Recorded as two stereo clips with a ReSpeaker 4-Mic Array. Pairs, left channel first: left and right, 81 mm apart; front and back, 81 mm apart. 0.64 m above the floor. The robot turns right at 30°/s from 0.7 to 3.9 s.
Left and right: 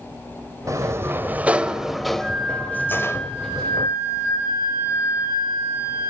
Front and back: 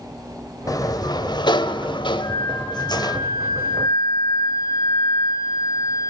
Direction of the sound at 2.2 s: 5° right.